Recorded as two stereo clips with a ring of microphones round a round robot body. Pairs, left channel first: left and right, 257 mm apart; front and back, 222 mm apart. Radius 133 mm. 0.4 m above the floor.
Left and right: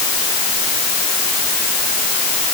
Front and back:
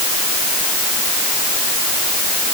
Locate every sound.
Only background noise.